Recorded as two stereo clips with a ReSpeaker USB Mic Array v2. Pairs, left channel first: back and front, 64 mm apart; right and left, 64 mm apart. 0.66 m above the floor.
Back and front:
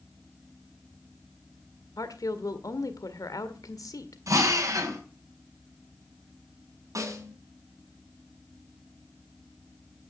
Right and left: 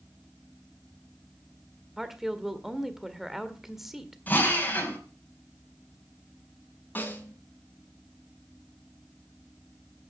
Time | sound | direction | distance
2.0 | a woman speaking | 175° left | 1.7 m
4.3 | a drill | 30° right | 4.5 m
7.0 | a snare drum | 30° right | 4 m